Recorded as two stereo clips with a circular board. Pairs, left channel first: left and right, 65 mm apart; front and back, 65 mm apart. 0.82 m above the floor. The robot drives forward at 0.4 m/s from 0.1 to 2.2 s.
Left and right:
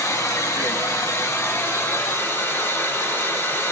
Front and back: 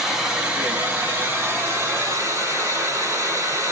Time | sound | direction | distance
0.0 | running water | 100° left | 1.0 m